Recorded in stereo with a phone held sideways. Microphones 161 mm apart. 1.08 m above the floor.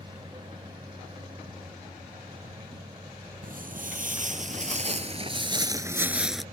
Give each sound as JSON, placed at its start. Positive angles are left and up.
{"t": 0.0, "sound": "a machine running", "side_deg": -30}
{"t": 3.4, "sound": "footsteps", "side_deg": -60}